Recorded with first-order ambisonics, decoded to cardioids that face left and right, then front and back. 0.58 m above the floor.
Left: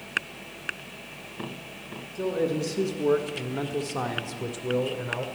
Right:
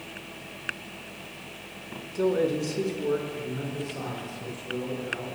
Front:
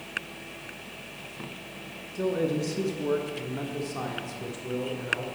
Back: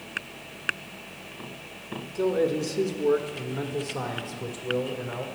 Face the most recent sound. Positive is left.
turn(degrees=95)